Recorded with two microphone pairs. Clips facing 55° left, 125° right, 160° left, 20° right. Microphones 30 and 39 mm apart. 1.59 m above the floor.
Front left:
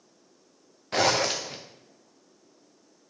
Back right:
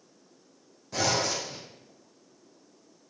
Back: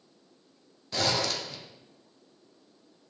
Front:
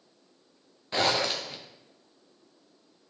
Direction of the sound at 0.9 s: 40° left.